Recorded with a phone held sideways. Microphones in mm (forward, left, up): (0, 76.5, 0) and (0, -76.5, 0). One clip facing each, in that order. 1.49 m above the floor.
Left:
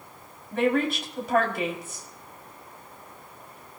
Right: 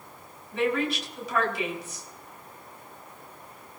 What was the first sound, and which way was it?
A woman speaking, 55° left (ahead or behind).